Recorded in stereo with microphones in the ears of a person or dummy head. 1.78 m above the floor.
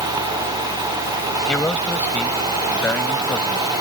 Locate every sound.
1.5 s a man speaking: 15° left (ahead or behind)